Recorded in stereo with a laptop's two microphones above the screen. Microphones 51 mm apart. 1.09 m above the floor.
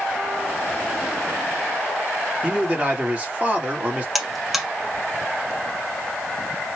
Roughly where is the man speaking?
Right.